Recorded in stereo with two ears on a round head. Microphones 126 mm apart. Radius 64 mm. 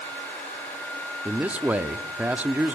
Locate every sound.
1.2 s a man speaking: 10° right (ahead or behind), 0.8 m